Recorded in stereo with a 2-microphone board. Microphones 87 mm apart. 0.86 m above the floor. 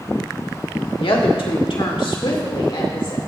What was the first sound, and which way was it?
A woman speaking, 80° left.